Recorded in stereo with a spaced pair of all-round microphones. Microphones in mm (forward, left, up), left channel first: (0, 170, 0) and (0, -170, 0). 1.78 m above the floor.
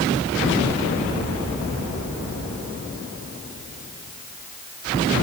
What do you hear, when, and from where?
Only background noise.